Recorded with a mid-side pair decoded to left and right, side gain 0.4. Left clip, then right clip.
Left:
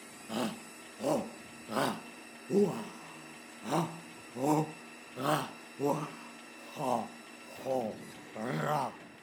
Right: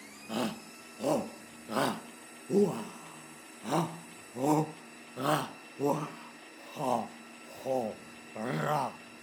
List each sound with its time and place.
0.3 s a shout: 15° right